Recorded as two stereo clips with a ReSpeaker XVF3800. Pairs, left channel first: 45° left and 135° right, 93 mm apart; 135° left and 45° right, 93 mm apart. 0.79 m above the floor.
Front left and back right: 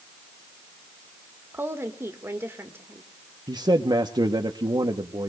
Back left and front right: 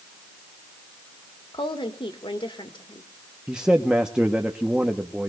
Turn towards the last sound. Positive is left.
turn(degrees=-120)